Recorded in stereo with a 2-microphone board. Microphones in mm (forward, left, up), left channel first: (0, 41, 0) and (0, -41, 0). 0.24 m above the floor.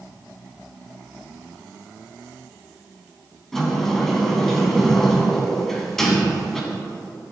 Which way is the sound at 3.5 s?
5° left (ahead or behind).